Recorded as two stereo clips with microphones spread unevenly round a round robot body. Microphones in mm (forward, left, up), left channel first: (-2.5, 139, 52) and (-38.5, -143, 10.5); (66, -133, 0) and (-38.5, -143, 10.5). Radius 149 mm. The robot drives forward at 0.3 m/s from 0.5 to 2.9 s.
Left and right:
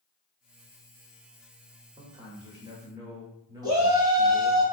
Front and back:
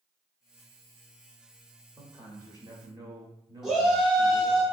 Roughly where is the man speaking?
Behind right.